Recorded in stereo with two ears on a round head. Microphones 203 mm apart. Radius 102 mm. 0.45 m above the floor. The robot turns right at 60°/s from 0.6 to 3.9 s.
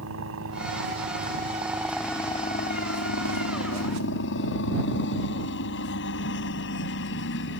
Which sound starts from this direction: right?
A helicopter, at 0.0 s.